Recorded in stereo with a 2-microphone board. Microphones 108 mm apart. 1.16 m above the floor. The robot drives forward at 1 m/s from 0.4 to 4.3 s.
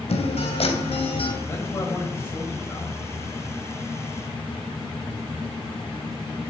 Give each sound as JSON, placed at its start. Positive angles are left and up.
{"t": 0.1, "sound": "a guitar", "side_deg": 75, "distance_m": 3.0}
{"t": 1.4, "sound": "a man speaking", "side_deg": 20, "distance_m": 7.0}